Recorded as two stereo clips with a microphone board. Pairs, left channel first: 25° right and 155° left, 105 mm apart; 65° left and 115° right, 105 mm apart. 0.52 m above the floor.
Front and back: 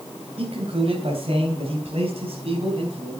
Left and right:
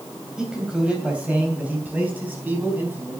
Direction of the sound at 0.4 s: 165° left.